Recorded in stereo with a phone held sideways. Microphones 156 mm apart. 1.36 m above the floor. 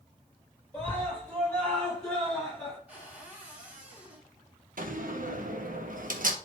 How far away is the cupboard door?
About 3.5 m.